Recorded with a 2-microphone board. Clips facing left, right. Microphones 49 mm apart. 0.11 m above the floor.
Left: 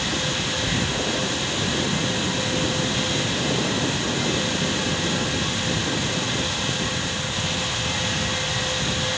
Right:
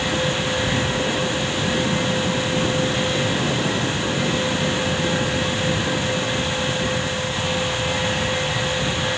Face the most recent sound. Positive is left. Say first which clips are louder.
# right 3 dB
turn(degrees=-10)  # may be behind; listen again after turning